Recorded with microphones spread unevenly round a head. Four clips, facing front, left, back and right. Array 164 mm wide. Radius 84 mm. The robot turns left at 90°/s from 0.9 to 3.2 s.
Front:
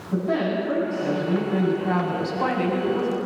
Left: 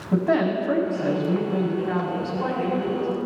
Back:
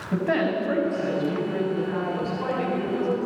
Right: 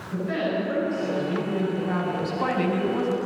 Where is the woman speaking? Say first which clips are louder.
Left 5 dB, even; 105° left, 8 m; by 3.2 s 100° right, 8 m.